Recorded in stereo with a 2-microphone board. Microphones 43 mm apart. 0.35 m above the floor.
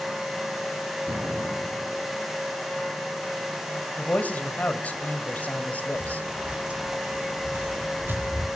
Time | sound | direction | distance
1.1 | an explosion | 65° right (ahead or behind) | 2.5 m
4.0 | a man speaking | 40° left (ahead or behind) | 2 m
6.0 | footsteps | 20° right (ahead or behind) | 4 m